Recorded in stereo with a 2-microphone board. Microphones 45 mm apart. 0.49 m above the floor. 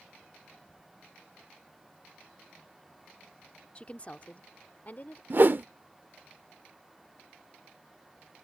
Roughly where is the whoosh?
Right.